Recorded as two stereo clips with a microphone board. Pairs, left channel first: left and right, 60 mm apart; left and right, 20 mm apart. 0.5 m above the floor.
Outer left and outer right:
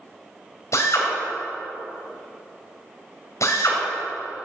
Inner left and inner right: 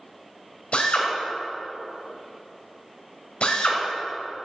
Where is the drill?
65° left (ahead or behind), 2.5 m.